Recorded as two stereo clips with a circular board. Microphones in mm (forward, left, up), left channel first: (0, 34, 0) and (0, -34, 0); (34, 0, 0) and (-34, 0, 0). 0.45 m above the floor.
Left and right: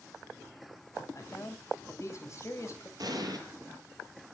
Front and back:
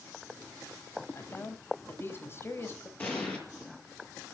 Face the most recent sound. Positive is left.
turn(degrees=-65)